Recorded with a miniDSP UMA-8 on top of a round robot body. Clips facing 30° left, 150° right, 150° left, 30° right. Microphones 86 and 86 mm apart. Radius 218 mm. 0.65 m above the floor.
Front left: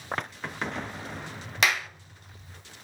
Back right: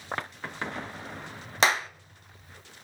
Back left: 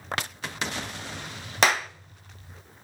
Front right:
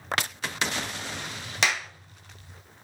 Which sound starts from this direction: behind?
A clap, at 1.6 s.